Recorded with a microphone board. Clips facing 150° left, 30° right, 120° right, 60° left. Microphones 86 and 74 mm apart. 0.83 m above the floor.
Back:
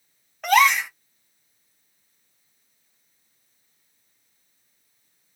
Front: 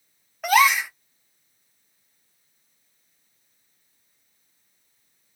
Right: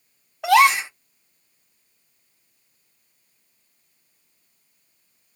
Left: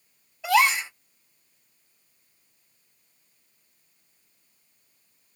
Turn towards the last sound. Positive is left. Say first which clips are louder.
# back 1 dB, right 6 dB
turn(degrees=-115)